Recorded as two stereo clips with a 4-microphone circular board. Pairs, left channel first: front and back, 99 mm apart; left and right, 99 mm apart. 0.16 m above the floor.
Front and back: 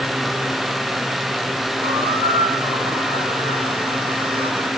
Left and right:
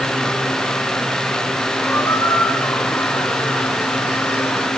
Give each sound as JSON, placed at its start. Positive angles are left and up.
{"t": 1.8, "sound": "a squeak", "azimuth_deg": 155, "distance_m": 4.5}